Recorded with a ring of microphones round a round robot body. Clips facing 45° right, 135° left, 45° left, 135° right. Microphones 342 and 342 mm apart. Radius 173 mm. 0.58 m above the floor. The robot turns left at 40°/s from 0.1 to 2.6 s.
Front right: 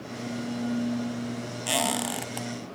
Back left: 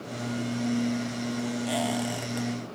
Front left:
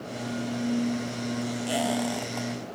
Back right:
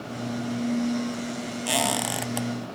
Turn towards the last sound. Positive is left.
turn(degrees=-120)